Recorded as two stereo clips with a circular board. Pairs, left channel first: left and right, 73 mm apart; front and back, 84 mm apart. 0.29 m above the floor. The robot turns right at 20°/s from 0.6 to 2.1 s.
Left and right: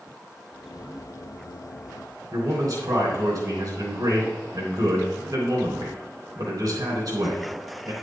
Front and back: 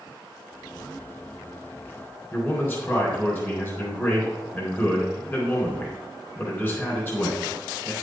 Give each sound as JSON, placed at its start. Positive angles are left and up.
{"t": 2.3, "sound": "a man speaking", "azimuth_deg": -60, "distance_m": 3.5}